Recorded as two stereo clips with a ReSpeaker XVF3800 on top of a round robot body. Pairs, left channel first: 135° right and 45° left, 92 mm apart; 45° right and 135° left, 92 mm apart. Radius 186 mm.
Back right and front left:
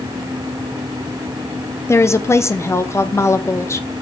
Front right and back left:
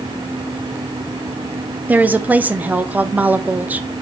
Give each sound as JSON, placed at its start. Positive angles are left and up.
{"t": 1.9, "sound": "a woman speaking", "azimuth_deg": -165, "distance_m": 0.9}